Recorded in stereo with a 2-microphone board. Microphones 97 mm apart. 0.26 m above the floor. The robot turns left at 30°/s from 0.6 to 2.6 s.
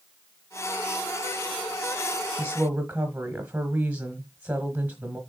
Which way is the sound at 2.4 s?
20° right (ahead or behind).